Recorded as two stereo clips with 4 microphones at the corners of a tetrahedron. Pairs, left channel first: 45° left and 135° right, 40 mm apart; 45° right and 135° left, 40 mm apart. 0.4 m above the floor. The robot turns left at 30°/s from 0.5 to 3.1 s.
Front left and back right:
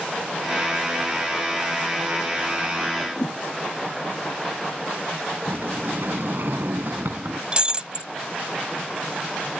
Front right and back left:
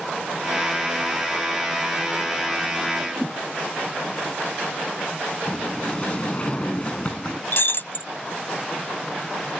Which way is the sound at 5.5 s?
110° right.